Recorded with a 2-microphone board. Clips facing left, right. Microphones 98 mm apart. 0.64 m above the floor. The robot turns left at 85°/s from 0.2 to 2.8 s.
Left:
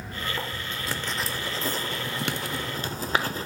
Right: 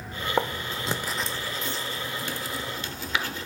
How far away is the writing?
About 0.6 m.